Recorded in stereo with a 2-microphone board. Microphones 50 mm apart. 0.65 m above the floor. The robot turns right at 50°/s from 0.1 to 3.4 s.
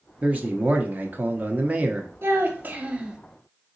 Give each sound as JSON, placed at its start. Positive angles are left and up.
{"t": 0.2, "sound": "a man speaking", "azimuth_deg": -125, "distance_m": 0.7}
{"t": 2.2, "sound": "a child speaking", "azimuth_deg": -65, "distance_m": 0.9}